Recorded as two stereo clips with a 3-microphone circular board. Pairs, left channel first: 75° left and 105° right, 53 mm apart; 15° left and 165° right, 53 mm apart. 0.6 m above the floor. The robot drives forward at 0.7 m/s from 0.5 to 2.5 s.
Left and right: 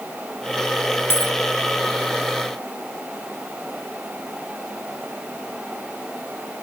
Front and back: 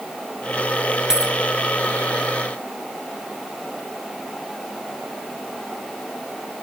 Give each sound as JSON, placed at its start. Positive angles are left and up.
{"t": 1.1, "sound": "a dropped coin", "azimuth_deg": 115}